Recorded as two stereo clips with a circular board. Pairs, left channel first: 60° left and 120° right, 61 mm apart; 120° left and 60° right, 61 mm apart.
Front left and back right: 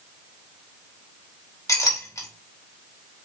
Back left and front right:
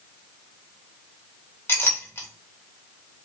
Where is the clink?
70° left, 1.9 m.